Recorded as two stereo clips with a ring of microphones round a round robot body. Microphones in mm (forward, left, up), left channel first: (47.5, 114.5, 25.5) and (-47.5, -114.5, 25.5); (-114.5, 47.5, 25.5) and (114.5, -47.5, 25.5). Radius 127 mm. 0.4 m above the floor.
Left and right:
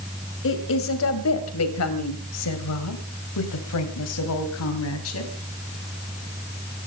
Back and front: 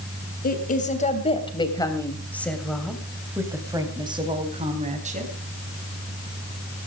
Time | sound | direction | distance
0.4 | a woman speaking | 105° left | 3 m